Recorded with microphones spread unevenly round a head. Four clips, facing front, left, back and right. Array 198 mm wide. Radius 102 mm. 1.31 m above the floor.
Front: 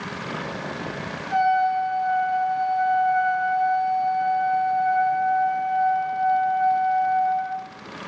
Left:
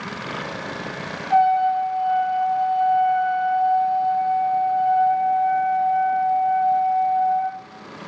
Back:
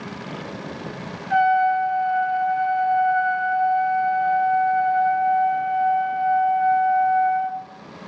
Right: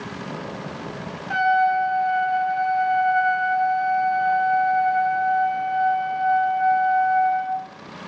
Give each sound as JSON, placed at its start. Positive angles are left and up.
{"t": 1.3, "sound": "a trumpet", "azimuth_deg": -105, "distance_m": 8.0}